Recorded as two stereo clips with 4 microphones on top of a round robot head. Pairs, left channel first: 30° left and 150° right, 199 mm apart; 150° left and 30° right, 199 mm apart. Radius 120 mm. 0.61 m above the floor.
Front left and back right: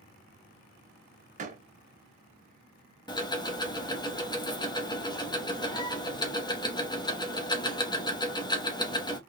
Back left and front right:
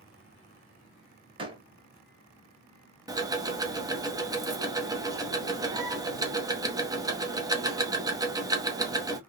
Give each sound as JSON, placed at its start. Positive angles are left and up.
{"t": 1.4, "sound": "a door slam", "azimuth_deg": -95, "distance_m": 1.6}
{"t": 3.1, "sound": "ticking", "azimuth_deg": 10, "distance_m": 1.2}